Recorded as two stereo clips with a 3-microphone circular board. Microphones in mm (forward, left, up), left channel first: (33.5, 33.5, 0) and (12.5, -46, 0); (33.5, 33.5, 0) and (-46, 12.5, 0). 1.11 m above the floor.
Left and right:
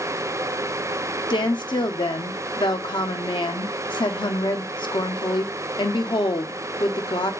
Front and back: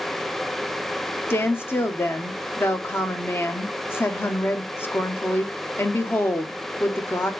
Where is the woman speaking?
75° left, 0.7 m.